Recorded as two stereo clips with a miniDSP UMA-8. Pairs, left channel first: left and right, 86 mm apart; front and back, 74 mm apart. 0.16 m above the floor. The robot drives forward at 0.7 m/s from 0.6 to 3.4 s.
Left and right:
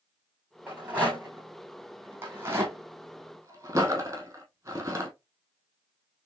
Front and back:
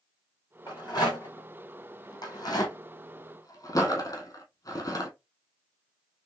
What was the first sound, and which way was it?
A rattle, 20° right.